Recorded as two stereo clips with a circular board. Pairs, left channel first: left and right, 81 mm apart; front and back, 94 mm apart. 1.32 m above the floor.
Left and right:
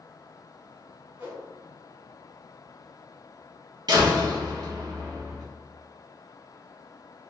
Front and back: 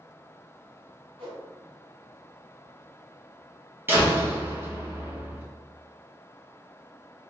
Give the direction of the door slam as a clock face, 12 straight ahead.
4 o'clock.